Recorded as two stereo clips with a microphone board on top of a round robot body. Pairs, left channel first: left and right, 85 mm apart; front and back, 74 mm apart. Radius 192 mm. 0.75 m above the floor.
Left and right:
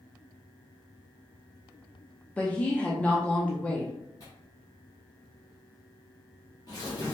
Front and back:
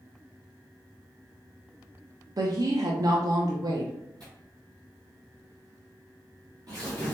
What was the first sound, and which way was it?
A woman speaking, 160° left.